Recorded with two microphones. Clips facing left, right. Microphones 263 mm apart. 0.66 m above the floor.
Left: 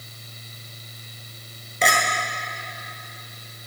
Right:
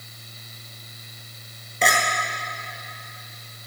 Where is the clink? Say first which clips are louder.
Even; centre (ahead or behind), 1.9 m.